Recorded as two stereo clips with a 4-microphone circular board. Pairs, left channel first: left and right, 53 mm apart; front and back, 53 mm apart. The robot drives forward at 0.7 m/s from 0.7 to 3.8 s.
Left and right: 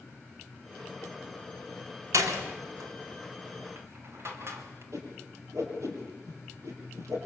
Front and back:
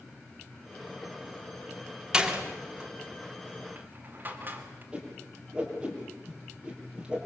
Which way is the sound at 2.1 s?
105° right.